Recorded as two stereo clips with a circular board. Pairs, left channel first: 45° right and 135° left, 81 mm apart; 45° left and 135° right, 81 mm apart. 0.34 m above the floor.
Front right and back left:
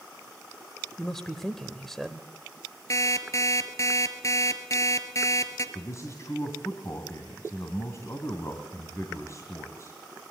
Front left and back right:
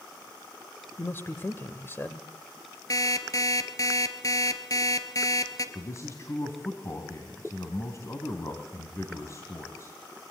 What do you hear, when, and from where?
1.0 s a man speaking: 35° left, 1.2 m
2.9 s an alarm clock: 5° left, 2 m
5.8 s a man speaking: straight ahead, 3 m